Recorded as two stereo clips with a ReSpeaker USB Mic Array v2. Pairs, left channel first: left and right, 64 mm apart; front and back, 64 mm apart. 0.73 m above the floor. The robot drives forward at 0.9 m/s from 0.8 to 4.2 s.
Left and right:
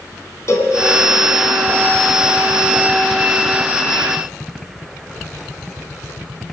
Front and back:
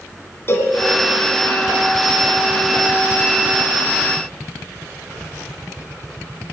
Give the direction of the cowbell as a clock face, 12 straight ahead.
10 o'clock.